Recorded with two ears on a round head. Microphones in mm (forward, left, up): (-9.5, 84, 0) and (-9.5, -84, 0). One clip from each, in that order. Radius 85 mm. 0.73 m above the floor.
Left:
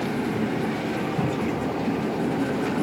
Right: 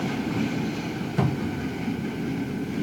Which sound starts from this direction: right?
A cupboard door, at 1.2 s.